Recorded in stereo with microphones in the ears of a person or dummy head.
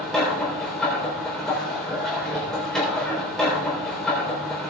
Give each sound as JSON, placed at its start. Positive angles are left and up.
{"t": 0.0, "sound": "a machine running", "side_deg": -5, "distance_m": 3.5}